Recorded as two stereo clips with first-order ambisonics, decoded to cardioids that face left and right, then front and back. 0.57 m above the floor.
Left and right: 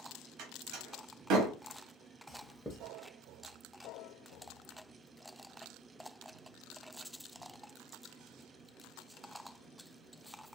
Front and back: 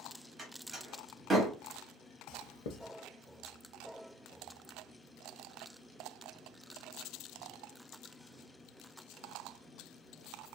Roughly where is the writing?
Ahead.